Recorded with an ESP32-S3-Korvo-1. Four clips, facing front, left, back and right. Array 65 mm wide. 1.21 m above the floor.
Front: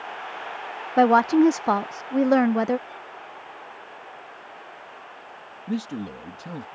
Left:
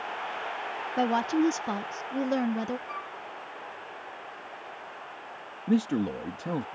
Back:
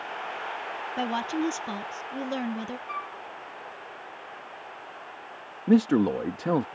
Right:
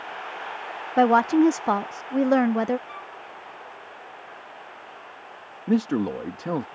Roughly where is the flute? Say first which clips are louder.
Left 1 dB, back 5 dB; behind.